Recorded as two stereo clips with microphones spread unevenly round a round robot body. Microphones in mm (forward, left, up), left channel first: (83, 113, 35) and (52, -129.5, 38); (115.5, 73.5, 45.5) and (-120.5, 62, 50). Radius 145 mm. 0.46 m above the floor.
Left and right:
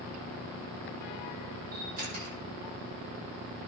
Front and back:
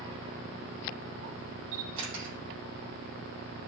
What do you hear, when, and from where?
1.7 s a camera shutter: 160° right, 6 m